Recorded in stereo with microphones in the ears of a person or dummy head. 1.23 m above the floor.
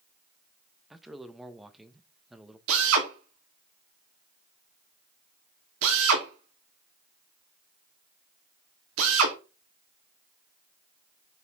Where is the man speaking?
Centre (ahead or behind), 0.9 m.